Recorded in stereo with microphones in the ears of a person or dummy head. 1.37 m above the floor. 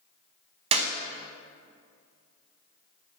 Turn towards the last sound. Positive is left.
turn(degrees=-35)  # may be behind; listen again after turning